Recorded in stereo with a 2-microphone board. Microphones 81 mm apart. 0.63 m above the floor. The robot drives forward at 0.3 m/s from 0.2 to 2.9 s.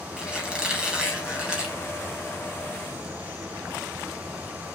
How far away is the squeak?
About 4 m.